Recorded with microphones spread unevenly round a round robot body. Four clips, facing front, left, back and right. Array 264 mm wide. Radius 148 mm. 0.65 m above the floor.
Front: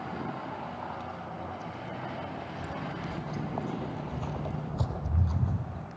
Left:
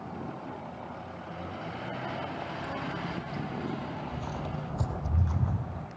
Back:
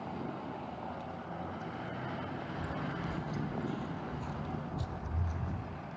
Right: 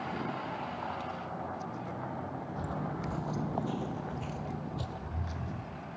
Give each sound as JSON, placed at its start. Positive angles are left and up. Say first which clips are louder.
{"t": 2.6, "sound": "footsteps", "louder": "left 1 dB, front 1 dB", "azimuth_deg": -75, "distance_m": 1.5}